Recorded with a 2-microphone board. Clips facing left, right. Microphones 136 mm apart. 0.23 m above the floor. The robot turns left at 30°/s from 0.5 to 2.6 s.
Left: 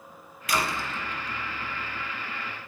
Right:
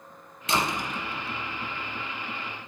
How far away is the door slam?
About 1.4 m.